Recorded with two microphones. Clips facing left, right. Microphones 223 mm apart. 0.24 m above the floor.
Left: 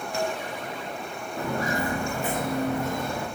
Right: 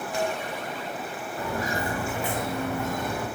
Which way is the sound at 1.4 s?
60° left (ahead or behind).